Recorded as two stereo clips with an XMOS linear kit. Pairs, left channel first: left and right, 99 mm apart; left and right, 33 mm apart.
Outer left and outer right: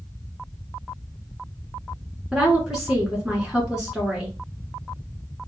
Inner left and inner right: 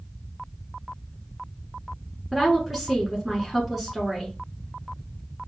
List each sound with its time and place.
2.3 s a woman speaking: 5° right (ahead or behind), 1.3 m